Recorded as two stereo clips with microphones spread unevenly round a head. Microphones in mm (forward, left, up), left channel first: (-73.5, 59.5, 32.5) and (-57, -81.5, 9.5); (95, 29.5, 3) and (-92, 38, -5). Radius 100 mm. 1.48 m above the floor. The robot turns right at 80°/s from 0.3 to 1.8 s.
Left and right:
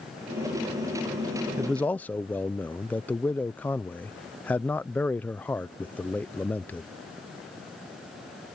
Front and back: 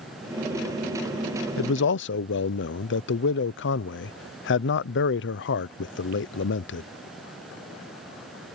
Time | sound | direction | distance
1.6 | a man speaking | 5° right | ?